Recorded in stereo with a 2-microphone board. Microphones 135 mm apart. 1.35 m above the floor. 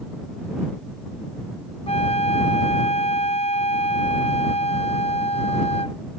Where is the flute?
50° left (ahead or behind).